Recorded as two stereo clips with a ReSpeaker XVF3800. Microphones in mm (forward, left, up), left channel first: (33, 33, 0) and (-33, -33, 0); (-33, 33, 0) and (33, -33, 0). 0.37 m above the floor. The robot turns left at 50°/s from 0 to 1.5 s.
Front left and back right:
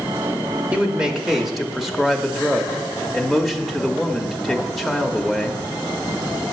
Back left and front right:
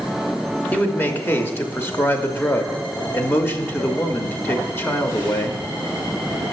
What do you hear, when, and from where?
0.7 s a man speaking: 175° left, 0.9 m; by 5.7 s 135° left, 0.9 m